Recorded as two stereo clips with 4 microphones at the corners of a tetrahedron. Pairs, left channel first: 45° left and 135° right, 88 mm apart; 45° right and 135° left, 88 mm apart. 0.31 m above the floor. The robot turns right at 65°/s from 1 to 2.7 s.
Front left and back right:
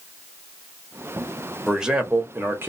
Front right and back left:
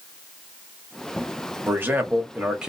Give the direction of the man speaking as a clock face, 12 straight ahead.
7 o'clock.